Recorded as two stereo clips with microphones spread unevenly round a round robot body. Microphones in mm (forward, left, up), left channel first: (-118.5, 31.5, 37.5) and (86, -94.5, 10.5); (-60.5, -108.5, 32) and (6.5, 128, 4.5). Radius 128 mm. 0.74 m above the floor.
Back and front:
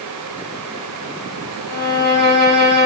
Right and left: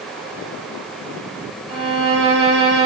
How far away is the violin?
About 1.5 m.